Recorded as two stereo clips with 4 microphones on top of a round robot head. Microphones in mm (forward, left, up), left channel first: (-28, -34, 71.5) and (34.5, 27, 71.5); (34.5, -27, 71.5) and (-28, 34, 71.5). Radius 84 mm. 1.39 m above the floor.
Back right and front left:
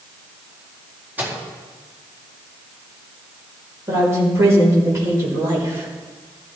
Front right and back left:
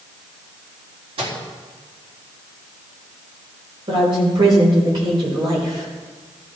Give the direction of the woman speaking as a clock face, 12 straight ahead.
9 o'clock.